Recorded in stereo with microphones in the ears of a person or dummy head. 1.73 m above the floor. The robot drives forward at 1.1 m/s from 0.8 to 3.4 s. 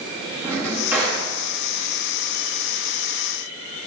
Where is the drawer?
15° right (ahead or behind), 1.8 m.